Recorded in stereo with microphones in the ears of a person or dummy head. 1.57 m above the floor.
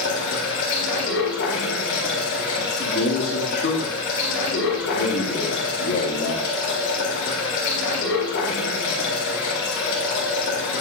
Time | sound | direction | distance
0.0 | running water | 65° left (ahead or behind) | 2.5 m
2.6 | a man speaking | 50° left (ahead or behind) | 2.5 m